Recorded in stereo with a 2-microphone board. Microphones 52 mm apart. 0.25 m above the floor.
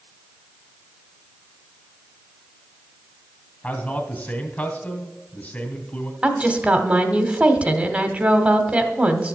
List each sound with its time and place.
3.6 s a man speaking: 30° left (ahead or behind), 2 m
6.2 s a woman speaking: 25° right (ahead or behind), 1.2 m